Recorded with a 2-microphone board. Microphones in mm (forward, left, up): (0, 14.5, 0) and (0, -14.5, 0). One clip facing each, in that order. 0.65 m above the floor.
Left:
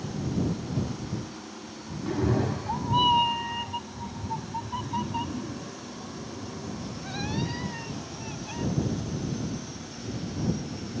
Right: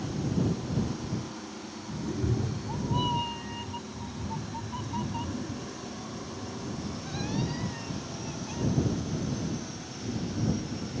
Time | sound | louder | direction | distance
2.1 | a cat meowing | left 6 dB | 50° left (ahead or behind) | ?